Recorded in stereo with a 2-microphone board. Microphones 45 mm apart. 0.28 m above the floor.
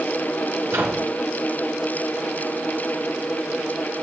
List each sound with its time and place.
0.7 s a microwave: 75° right (ahead or behind), 4 m